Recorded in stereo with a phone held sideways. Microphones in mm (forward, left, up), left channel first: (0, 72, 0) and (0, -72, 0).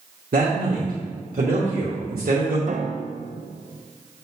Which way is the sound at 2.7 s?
55° right (ahead or behind).